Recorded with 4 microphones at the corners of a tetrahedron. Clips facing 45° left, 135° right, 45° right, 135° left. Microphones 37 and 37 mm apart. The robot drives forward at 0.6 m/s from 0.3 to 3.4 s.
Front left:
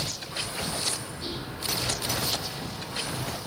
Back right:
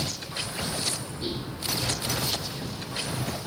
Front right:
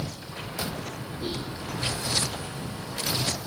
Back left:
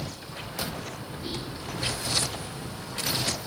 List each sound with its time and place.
1.2 s whispering: 65° right, 5 m